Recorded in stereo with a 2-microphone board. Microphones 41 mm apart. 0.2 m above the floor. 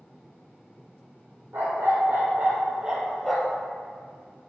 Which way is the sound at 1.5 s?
55° right (ahead or behind).